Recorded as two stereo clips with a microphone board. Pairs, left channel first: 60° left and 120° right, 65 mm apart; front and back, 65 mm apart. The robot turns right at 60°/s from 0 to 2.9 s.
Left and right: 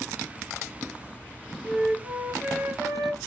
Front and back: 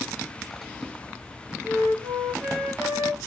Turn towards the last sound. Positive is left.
turn(degrees=-155)